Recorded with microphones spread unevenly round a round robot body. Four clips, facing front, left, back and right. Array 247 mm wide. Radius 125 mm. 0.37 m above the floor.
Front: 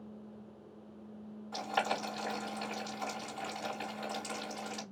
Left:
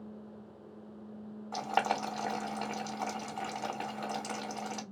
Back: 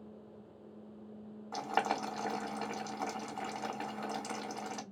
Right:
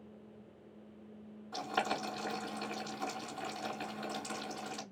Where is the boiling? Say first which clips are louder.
Left 5 dB, back 1 dB; 105° left, 2.0 m.